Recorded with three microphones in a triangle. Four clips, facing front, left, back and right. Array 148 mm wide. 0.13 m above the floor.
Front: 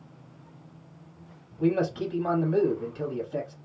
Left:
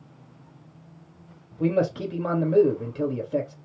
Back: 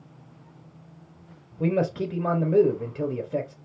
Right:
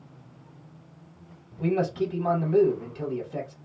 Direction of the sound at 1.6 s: 135° left.